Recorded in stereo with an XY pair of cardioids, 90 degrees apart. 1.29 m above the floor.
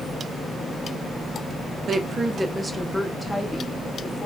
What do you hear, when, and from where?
1.9 s a woman speaking: 50° right, 0.6 m; by 4.3 s 15° left, 1.6 m